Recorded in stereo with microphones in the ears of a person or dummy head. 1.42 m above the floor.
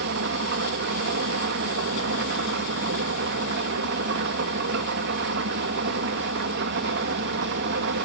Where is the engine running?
60° right (ahead or behind), 1.2 m.